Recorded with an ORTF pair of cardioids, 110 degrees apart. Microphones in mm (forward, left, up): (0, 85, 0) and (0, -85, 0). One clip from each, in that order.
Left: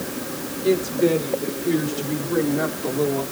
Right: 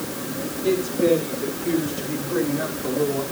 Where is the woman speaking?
5° left, 8.5 m; by 3.2 s 15° left, 5.5 m.